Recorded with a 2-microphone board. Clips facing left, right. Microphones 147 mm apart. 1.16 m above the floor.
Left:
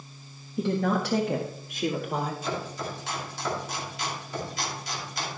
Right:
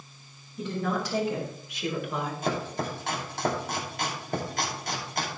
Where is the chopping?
55° right (ahead or behind), 2.5 m.